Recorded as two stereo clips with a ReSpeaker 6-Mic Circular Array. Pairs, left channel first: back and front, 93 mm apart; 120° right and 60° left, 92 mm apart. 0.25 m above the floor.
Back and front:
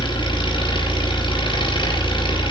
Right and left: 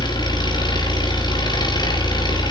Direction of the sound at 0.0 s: 155° right.